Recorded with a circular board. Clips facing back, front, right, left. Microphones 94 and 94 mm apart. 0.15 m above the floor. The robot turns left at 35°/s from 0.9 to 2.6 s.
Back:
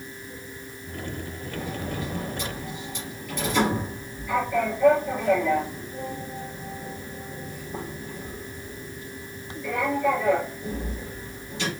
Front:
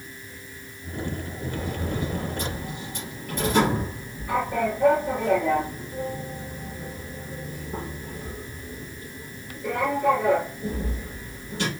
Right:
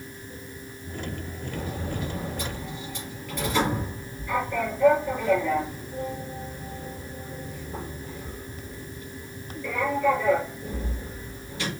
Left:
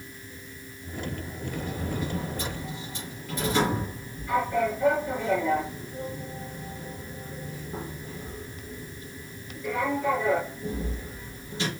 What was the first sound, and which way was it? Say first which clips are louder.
A sliding door: front 1 dB, even; 65° left.